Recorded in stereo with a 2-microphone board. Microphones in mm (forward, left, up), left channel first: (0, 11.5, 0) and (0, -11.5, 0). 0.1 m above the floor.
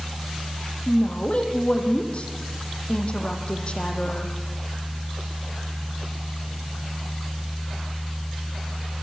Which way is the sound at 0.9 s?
45° left (ahead or behind).